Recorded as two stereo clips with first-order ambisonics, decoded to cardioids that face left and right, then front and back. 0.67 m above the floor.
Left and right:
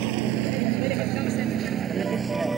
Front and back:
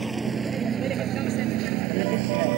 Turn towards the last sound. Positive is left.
turn(degrees=-170)